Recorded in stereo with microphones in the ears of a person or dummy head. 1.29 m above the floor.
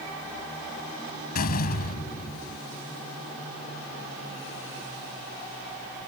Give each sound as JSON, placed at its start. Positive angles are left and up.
{"t": 1.4, "sound": "a door slam", "side_deg": 50}